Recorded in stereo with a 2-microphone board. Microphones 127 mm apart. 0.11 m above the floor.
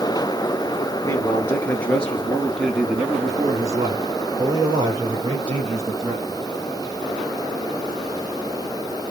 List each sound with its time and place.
1.0 s a man speaking: 25° left (ahead or behind), 1.6 m; by 6.4 s 50° right (ahead or behind), 3 m